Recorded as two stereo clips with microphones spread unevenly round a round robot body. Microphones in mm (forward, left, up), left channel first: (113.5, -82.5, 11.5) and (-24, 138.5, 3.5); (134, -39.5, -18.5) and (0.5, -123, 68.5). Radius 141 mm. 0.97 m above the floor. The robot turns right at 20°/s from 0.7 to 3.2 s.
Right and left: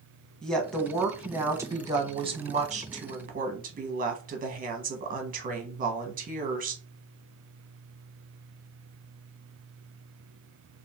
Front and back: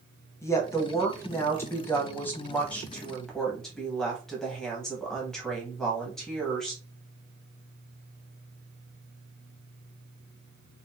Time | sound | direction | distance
0.4 | a woman speaking | 30° left | 0.8 m